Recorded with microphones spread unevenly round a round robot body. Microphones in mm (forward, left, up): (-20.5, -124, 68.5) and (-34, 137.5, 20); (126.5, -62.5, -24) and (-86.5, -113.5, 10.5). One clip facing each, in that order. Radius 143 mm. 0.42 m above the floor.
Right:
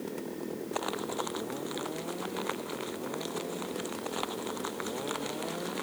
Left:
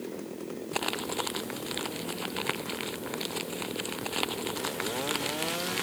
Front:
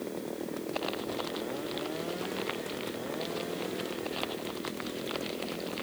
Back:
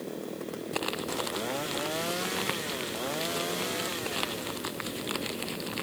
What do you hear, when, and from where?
0.7 s crumpling: 140° left